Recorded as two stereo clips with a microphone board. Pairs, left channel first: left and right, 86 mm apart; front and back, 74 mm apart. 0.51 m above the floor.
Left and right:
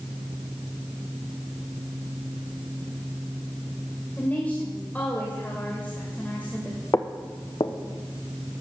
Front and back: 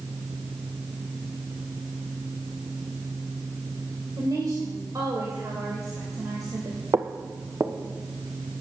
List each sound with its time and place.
4.2 s a woman speaking: 160° left, 2.5 m
6.9 s footsteps: 140° left, 0.9 m; by 8.6 s 110° left, 3 m